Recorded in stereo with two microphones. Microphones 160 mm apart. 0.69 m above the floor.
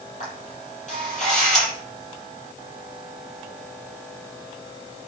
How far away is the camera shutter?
About 7 m.